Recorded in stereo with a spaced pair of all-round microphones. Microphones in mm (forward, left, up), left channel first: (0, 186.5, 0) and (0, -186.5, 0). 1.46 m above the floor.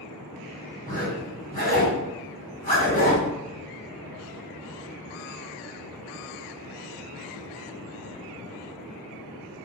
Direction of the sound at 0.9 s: 20° left (ahead or behind).